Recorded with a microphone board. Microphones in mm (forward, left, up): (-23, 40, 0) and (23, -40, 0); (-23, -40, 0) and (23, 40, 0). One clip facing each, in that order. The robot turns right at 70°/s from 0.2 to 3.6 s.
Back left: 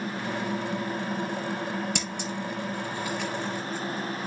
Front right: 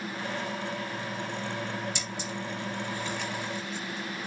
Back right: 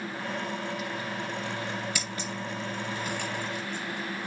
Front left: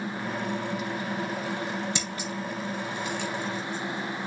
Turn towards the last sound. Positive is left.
turn(degrees=-125)